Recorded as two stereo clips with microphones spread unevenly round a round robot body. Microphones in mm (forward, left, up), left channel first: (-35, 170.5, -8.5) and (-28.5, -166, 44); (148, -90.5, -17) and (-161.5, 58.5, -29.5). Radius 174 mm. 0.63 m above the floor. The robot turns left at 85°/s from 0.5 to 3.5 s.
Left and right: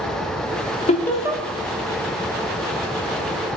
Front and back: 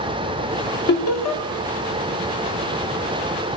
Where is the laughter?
30° left, 1.8 m; by 1.4 s 15° right, 1.8 m.